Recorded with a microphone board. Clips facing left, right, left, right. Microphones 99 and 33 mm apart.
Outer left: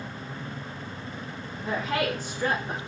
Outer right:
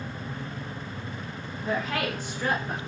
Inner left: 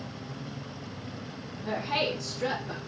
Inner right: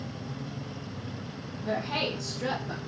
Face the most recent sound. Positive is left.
turn(degrees=15)  # may be behind; listen again after turning